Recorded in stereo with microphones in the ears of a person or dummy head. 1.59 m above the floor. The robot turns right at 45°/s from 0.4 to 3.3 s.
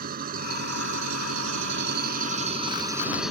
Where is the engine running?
130° right; by 3.3 s straight ahead.